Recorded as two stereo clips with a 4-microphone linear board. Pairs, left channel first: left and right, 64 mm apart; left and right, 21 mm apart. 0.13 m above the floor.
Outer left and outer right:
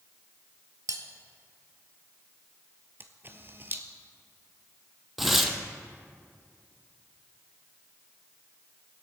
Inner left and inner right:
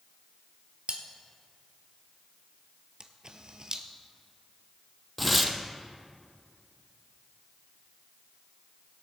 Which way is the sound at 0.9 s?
65° right (ahead or behind).